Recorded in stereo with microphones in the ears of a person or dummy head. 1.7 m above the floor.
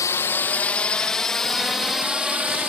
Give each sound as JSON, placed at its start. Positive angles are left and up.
{"t": 0.0, "sound": "a drone", "side_deg": 20}